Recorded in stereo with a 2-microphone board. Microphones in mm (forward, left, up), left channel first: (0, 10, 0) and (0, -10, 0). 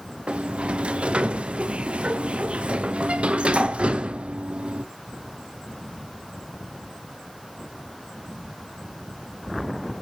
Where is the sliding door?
85° right, 0.8 m.